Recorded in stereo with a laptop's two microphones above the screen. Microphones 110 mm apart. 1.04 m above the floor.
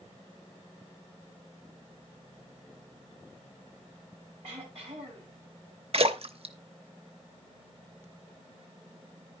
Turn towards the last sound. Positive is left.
turn(degrees=-55)  # may be behind; listen again after turning